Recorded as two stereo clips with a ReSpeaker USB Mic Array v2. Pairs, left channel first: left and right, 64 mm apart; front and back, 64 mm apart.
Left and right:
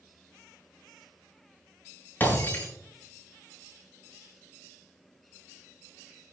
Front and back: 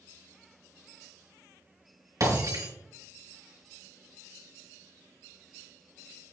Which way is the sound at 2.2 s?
150° left.